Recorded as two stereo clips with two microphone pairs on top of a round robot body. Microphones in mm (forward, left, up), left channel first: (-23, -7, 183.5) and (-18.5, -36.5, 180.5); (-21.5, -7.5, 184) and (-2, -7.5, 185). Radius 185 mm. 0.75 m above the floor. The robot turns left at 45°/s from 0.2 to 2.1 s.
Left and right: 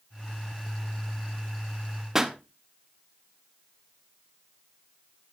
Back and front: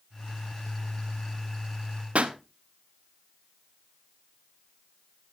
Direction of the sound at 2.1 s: 10° right.